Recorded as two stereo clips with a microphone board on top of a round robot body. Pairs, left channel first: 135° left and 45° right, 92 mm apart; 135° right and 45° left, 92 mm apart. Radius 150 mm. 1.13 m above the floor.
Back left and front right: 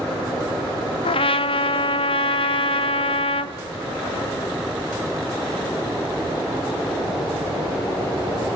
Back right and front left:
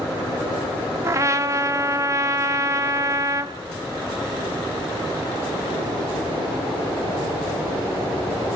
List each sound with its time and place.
1.0 s a trumpet: 105° left, 1.1 m